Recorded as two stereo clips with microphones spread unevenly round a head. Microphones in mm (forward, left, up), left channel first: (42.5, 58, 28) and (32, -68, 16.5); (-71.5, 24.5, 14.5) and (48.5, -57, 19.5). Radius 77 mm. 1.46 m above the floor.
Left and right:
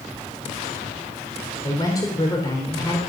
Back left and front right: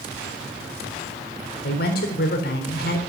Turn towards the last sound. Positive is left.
turn(degrees=150)